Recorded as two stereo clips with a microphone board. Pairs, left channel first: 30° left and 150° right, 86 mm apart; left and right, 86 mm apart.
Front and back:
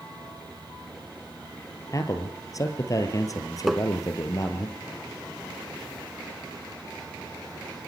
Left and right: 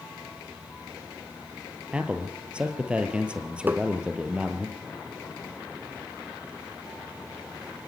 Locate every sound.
1.9 s a man speaking: 15° right, 2.5 m
3.7 s tapping: 65° right, 0.7 m